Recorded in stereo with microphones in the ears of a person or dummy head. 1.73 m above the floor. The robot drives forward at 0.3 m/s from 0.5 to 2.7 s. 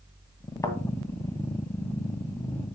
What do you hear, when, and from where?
0.6 s a thud: 15° left (ahead or behind), 2 m